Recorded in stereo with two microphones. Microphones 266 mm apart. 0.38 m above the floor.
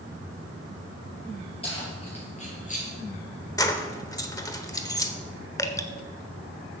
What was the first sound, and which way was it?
Keys jangling, 20° left (ahead or behind).